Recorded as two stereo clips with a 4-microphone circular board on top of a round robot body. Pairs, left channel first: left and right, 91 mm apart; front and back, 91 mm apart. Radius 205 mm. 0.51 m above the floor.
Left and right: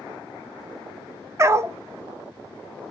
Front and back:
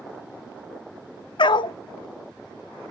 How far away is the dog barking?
About 0.7 m.